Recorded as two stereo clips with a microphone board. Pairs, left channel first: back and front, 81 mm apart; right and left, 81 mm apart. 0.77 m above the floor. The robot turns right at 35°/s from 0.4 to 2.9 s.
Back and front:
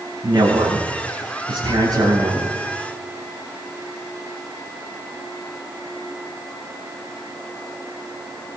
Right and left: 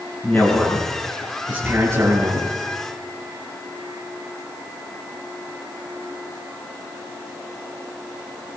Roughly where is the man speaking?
Ahead.